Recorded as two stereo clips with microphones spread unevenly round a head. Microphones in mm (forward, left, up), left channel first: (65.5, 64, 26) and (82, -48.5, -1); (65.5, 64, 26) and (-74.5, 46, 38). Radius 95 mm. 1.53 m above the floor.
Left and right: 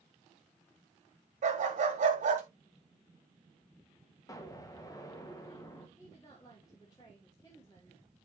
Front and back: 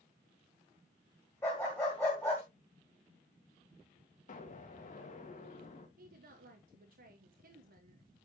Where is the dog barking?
70° right, 2.5 m.